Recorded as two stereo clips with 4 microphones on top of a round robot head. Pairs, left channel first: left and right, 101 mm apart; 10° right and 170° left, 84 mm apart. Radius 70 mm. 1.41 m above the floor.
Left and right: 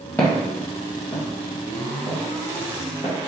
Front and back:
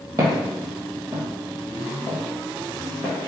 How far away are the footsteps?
About 1.6 m.